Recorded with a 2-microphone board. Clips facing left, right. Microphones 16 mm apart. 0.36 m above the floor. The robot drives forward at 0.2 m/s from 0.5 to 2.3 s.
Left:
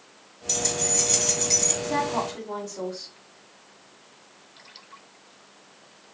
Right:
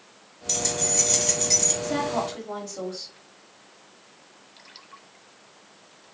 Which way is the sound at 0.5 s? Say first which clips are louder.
Even; 5° right (ahead or behind).